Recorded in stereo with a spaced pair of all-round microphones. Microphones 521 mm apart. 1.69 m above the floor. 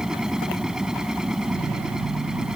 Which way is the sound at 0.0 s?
Centre (ahead or behind).